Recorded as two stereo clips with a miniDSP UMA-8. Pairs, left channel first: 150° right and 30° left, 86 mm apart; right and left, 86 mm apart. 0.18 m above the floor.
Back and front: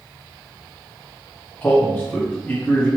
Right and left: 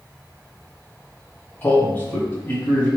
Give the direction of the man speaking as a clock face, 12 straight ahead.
3 o'clock.